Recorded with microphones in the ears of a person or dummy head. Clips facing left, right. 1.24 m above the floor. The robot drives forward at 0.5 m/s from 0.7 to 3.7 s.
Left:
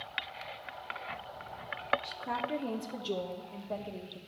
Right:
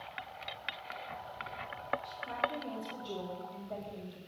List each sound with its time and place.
2.0 s a woman speaking: 75° left (ahead or behind), 0.9 m; by 4.2 s 55° left (ahead or behind), 1.1 m